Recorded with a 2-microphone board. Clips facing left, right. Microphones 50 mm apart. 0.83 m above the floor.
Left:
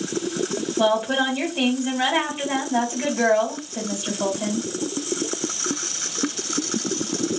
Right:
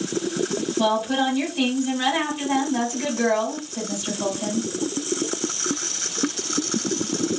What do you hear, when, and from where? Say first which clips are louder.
0.8 s a woman speaking: left 2 dB; 45° left (ahead or behind), 2 m